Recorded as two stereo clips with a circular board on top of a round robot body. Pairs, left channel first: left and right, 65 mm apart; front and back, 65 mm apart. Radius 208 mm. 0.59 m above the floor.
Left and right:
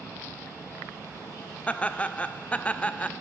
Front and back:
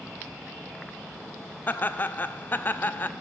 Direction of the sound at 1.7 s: 35° left.